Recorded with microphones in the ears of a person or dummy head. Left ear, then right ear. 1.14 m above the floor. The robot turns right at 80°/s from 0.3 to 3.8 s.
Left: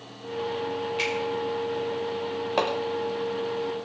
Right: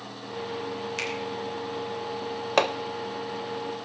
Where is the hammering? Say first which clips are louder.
Right 3 dB; 45° right (ahead or behind), 0.6 m; by 2.7 s 55° right (ahead or behind), 0.6 m.